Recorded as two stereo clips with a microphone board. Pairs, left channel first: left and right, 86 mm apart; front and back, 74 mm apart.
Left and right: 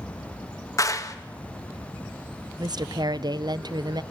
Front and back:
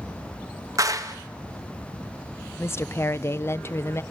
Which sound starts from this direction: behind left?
A clap, at 0.8 s.